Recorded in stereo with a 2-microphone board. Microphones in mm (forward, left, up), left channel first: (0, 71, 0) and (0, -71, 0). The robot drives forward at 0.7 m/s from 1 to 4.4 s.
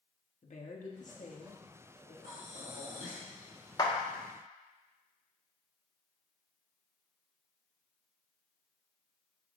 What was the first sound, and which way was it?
A woman speaking, 60° left (ahead or behind).